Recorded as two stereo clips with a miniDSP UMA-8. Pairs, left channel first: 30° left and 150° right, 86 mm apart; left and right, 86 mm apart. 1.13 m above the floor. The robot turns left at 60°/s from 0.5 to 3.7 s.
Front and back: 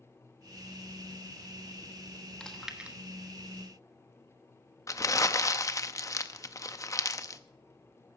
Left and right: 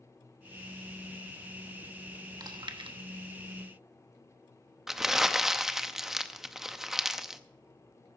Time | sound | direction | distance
2.4 | chewing | 50° right | 1.1 m
4.9 | crumpling | 5° right | 0.6 m